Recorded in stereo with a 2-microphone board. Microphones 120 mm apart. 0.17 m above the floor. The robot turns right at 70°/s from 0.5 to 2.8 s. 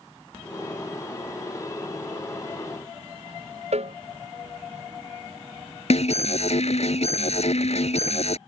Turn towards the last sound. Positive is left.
turn(degrees=65)  # may be behind; listen again after turning